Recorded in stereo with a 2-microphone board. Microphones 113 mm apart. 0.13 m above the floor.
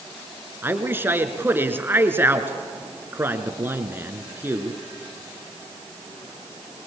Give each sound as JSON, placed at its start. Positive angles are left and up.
{"t": 0.6, "sound": "a man speaking", "side_deg": -20, "distance_m": 1.6}